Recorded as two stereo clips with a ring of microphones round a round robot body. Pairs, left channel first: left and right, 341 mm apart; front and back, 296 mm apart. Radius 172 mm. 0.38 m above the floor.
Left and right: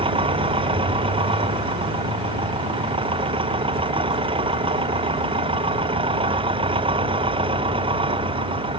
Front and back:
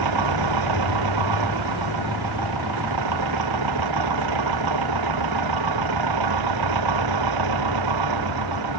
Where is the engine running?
165° right.